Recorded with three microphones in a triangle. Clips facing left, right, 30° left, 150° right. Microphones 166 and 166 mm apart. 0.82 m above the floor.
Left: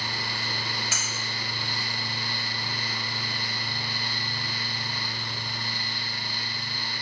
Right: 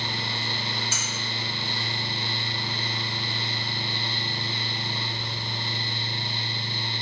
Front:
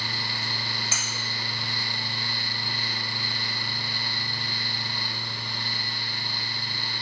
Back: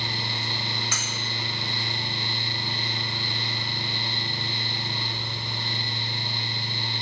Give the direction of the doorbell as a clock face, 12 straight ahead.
No doorbell in this recording.